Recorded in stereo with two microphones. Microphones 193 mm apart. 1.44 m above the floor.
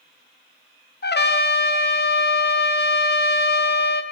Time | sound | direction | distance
1.0 | a trumpet | 60° left (ahead or behind) | 0.9 m